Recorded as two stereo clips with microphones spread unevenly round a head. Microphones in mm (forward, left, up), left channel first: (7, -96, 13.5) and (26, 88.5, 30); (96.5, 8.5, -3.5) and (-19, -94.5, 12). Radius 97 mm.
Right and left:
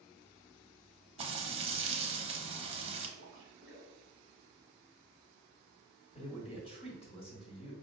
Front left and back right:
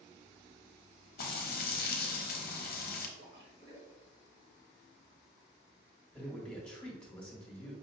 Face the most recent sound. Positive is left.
turn(degrees=-40)